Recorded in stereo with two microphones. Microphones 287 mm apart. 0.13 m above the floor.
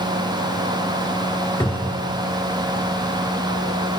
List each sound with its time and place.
1.6 s a cupboard door: 5° left (ahead or behind), 2 m